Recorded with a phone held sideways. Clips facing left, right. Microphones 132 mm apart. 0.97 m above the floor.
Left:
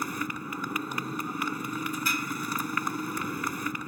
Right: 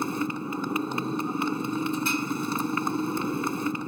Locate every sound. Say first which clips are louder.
0.0 s a motorcycle: right 5 dB; 25° right (ahead or behind)